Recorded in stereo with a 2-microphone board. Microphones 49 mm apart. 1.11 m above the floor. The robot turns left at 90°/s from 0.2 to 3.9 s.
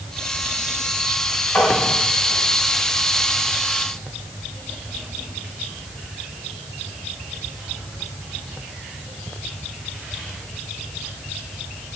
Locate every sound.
1.6 s tapping: 55° left (ahead or behind), 1.8 m; by 1.7 s 65° left (ahead or behind), 1.8 m